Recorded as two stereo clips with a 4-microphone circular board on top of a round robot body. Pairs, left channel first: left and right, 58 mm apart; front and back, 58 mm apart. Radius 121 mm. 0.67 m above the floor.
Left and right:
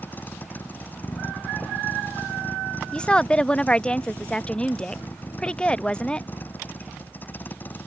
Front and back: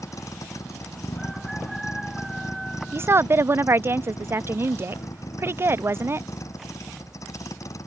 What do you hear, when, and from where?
0.0 s a vehicle: 30° left
2.9 s a woman speaking: 160° left